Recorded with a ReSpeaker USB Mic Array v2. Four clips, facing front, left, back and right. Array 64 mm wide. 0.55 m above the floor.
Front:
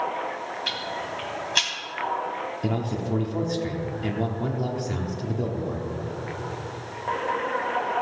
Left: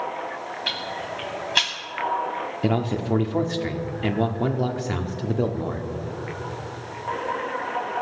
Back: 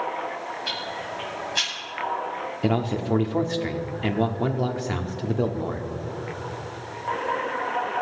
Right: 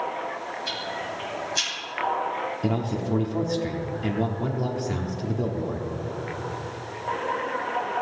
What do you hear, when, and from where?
0.7 s ticking: 70° left, 2.5 m
2.6 s a man speaking: 135° left, 0.8 m